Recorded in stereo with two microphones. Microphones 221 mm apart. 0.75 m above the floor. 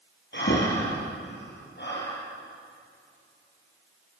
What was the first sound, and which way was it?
Breathing, 55° left (ahead or behind).